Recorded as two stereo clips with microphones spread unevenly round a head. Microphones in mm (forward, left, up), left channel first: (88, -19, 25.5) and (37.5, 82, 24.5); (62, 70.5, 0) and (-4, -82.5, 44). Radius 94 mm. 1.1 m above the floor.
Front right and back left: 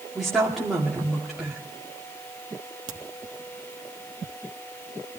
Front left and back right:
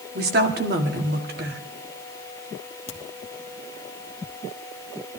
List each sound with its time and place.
0.1 s a woman speaking: 155° right, 2 m
2.9 s a crack: 125° left, 1.3 m